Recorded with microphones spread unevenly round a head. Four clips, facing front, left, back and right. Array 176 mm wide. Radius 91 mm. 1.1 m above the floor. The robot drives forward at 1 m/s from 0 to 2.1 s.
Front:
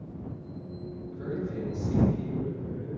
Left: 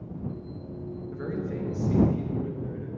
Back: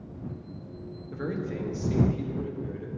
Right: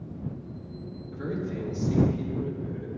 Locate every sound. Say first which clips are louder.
1.1 s a man speaking: right 1 dB, back 2 dB; 170° right, 1.2 m; by 2.9 s 175° right, 2 m